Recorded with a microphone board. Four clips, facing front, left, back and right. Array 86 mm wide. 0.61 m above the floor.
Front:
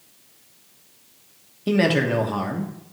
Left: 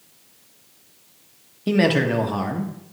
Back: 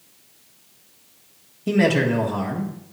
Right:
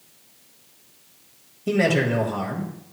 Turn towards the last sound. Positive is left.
turn(degrees=50)